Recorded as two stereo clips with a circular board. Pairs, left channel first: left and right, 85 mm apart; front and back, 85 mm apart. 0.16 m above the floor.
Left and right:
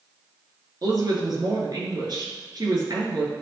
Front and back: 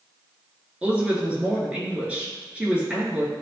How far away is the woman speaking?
About 2.5 m.